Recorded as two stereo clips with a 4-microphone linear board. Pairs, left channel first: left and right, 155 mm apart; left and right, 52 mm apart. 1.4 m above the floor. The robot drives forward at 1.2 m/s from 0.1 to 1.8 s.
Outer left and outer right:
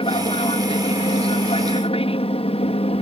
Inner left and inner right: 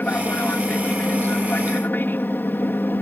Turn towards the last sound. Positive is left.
turn(degrees=40)  # may be behind; listen again after turning